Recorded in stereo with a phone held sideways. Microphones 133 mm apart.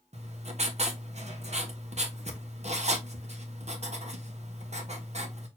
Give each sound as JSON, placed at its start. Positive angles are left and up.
{"t": 0.1, "sound": "writing", "side_deg": -60, "distance_m": 1.2}